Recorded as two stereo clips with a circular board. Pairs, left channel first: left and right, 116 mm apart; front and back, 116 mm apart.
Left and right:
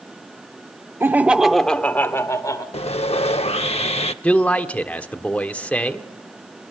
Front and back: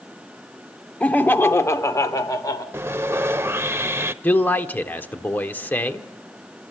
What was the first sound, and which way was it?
Laughter, 60° right.